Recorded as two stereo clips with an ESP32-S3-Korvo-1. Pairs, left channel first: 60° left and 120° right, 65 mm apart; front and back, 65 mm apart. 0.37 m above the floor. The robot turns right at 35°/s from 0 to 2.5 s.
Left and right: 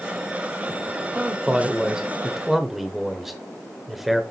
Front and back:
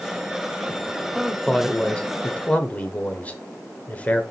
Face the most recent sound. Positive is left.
turn(degrees=-35)